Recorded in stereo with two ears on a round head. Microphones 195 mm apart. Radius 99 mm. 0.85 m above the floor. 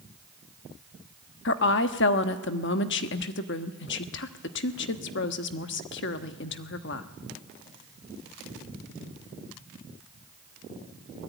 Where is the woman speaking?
55° left (ahead or behind), 1.2 m.